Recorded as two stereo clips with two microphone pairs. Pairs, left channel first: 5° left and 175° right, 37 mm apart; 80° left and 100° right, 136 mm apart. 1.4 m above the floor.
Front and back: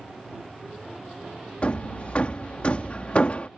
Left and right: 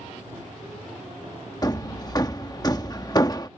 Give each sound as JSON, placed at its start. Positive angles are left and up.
{"t": 1.6, "sound": "hammering", "azimuth_deg": 35}